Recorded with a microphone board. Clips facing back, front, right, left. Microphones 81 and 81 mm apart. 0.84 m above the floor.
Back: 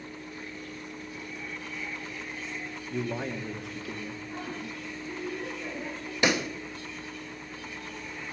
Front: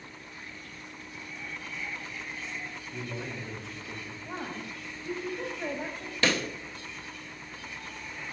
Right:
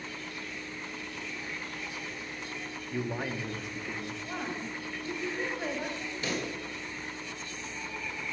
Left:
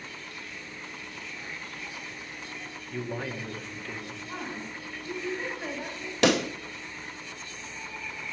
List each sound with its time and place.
2.9 s a man speaking: 170° right, 1.4 m
4.2 s a woman speaking: 30° right, 4 m
6.2 s a pop: 105° left, 0.5 m